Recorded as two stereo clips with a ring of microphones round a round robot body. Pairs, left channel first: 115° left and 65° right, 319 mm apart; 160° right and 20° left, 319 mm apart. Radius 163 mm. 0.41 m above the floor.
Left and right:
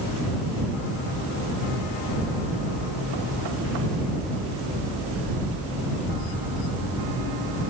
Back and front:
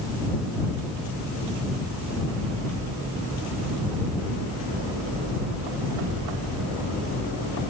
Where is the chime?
I don't hear a chime.